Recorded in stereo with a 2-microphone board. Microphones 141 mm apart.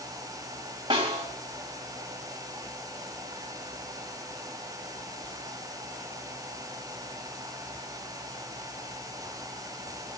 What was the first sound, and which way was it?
A snare drum, 35° right (ahead or behind).